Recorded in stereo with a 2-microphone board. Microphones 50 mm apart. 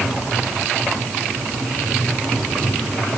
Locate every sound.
Only background noise.